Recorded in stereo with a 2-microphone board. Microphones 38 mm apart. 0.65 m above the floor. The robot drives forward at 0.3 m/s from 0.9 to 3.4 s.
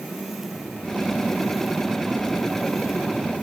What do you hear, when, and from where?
Only background noise.